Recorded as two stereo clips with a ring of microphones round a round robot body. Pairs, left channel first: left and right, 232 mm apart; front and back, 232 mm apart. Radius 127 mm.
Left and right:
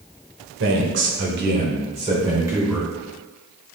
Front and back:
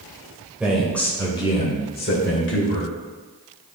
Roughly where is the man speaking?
Right.